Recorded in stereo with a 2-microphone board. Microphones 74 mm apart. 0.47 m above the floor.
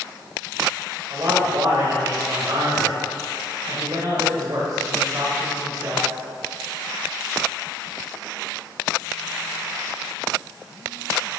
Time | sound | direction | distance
1.1 | a man speaking | 50° right (ahead or behind) | 1.5 m